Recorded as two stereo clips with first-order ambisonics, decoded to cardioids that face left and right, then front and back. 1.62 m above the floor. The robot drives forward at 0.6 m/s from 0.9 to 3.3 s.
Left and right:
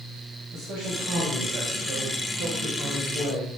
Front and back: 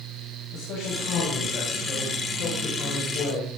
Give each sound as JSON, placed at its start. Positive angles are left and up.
{"t": 0.5, "sound": "a man speaking", "azimuth_deg": -35, "distance_m": 7.5}